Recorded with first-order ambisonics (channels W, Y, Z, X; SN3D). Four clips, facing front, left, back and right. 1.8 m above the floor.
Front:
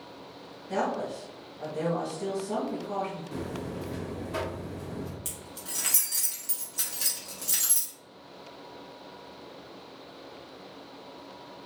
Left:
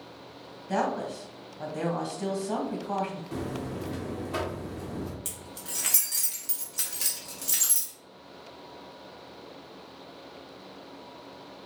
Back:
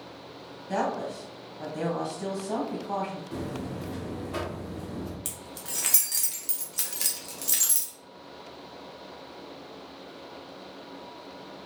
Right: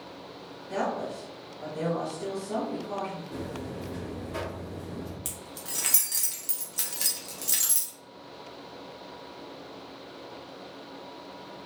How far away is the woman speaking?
About 1.0 m.